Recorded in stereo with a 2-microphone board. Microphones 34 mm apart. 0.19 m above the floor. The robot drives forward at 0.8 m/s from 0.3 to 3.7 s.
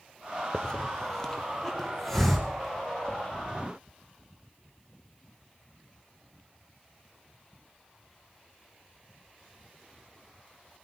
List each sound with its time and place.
0.5 s a hiss: 30° left (ahead or behind), 0.6 m; by 3.2 s 5° left (ahead or behind), 2.5 m